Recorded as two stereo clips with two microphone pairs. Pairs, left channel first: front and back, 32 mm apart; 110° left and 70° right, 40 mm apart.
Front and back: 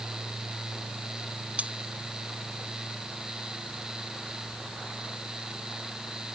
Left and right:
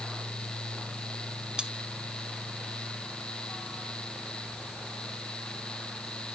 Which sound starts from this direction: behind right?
Cutlery clinking, at 1.6 s.